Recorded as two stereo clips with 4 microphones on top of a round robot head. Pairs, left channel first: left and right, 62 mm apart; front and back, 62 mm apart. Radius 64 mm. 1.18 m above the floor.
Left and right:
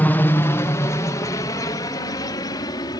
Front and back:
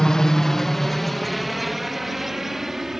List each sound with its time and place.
0.0 s a helicopter: 70° left; by 3.0 s 90° left